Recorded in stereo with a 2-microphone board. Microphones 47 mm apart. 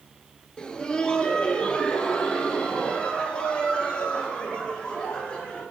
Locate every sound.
0.6 s laughter: 20° left (ahead or behind), 1.6 m; by 5.6 s 25° left (ahead or behind), 7.5 m